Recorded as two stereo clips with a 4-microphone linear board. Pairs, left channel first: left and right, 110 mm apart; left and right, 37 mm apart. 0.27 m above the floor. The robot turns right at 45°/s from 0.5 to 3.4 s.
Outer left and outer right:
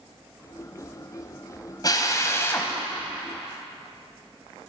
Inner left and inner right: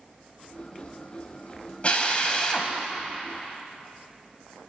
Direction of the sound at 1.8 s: 40° left (ahead or behind).